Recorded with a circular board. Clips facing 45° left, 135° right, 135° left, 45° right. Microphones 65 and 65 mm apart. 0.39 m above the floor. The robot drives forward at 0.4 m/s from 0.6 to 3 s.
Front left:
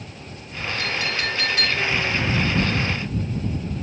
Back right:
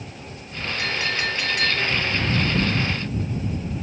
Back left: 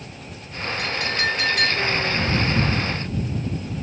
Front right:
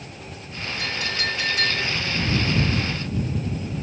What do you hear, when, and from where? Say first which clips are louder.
0.8 s a clink: back right 1 dB, back left 3 dB; 155° left, 1.7 m; by 1.9 s 160° left, 2 m